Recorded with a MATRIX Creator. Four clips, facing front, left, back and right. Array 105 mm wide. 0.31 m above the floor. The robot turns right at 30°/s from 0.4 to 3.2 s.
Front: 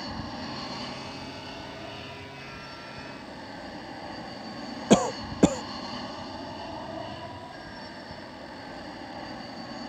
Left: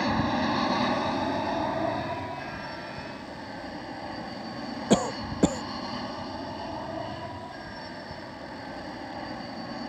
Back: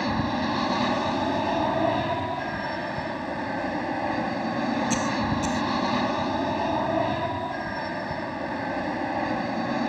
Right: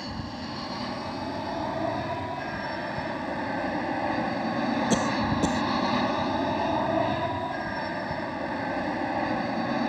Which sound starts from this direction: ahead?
A cough, at 4.9 s.